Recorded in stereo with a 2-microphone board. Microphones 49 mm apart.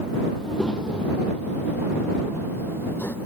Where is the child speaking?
15° left (ahead or behind); by 3.2 s 50° left (ahead or behind).